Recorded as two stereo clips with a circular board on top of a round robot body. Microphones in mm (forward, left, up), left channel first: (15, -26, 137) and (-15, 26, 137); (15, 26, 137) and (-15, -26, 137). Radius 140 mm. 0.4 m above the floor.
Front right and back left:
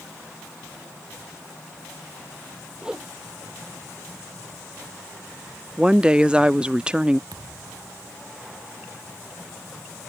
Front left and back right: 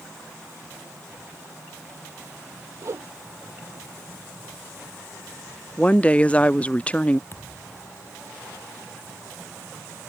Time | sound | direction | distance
2.8 | a whoosh | 165° right | ?
5.8 | a woman speaking | 80° left | ?
7.3 | a thud | 110° left | ?